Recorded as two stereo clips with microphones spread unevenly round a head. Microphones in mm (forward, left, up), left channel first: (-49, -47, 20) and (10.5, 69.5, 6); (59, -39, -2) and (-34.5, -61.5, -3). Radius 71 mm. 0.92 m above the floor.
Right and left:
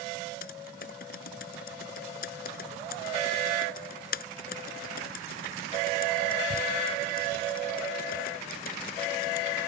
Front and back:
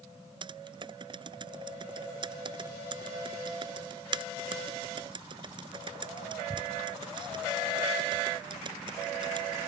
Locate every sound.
0.4 s typing on a keyboard: 130° right